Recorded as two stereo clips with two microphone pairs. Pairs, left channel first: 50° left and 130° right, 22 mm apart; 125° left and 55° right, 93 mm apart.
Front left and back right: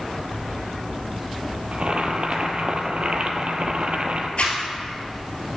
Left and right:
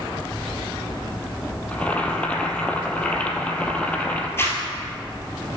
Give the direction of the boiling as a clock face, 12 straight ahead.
5 o'clock.